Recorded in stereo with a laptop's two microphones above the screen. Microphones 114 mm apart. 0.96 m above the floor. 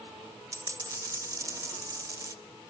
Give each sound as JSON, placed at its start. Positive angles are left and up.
{"t": 0.5, "sound": "a dropped coin", "side_deg": -30, "distance_m": 0.8}